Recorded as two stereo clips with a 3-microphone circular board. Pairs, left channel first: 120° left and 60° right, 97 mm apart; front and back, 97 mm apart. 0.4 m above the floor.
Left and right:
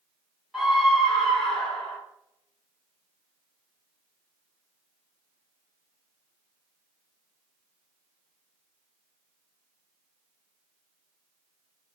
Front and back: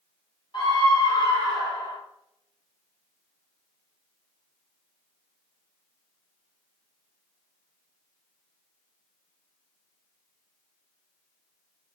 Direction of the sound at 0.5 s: 30° left.